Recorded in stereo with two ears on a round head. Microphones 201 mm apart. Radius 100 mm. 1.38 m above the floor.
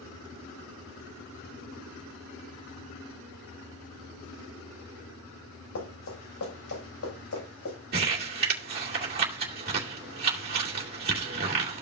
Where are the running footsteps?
65° left (ahead or behind), 6.5 m; by 7.8 s 70° left (ahead or behind), 7.5 m.